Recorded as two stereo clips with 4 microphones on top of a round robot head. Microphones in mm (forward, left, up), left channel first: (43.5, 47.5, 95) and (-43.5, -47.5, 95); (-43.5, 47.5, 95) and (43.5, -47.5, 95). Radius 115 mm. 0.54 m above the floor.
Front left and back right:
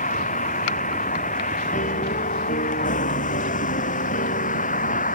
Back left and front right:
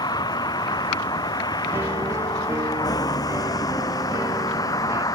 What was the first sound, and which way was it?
A vehicle, 70° left.